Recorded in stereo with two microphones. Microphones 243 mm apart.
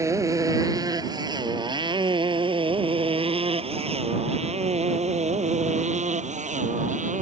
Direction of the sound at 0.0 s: 10° right (ahead or behind).